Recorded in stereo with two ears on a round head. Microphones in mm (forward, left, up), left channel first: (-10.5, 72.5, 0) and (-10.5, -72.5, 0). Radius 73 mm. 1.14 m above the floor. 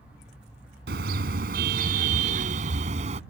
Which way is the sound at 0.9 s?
65° right (ahead or behind).